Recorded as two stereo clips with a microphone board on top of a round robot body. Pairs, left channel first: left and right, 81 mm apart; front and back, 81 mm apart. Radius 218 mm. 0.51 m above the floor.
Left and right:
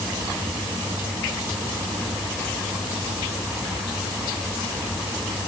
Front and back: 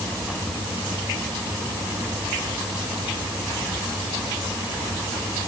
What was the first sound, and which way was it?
Only background noise.